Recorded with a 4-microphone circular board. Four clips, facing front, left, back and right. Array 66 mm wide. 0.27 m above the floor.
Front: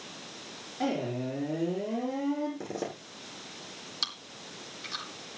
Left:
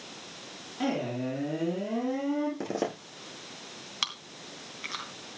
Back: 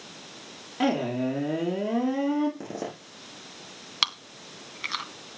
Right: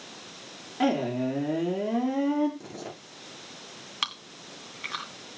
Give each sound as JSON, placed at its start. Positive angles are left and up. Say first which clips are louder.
{"t": 0.8, "sound": "a man speaking", "louder": "right 5 dB, back 6 dB", "azimuth_deg": -150, "distance_m": 4.0}
{"t": 2.6, "sound": "a zipper", "louder": "left 9 dB, back 1 dB", "azimuth_deg": 95, "distance_m": 7.0}
{"t": 4.0, "sound": "chewing", "louder": "right 2 dB, back 11 dB", "azimuth_deg": -160, "distance_m": 2.0}